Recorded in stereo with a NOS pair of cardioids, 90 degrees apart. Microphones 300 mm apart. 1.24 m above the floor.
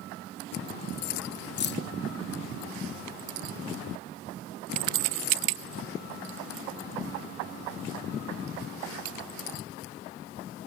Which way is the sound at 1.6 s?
35° left.